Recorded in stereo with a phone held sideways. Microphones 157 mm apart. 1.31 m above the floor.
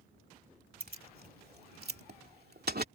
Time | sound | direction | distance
0.8 | keys jangling | 70° right (ahead or behind) | ?